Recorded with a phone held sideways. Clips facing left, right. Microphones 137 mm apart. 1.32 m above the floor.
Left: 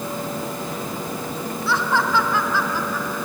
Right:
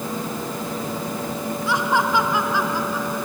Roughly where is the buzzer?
No buzzer in this recording.